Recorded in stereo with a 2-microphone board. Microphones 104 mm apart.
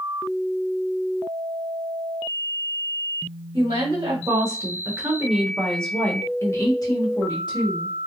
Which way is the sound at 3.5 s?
50° right (ahead or behind).